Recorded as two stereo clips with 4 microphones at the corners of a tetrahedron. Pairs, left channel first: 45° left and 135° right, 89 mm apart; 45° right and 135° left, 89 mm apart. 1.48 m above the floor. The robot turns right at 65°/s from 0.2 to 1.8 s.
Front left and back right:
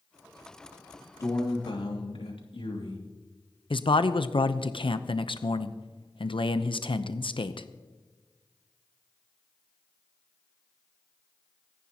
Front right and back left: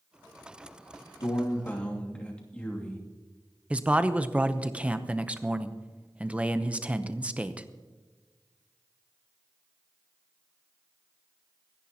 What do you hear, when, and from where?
1.2 s a man speaking: 5° right, 2.5 m; by 3.0 s 30° left, 2.5 m
3.7 s a man speaking: 60° left, 0.8 m